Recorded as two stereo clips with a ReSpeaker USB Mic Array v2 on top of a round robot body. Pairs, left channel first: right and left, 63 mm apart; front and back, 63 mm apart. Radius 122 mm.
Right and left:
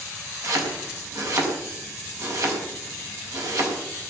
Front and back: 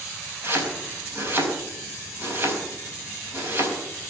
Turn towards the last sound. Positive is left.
turn(degrees=125)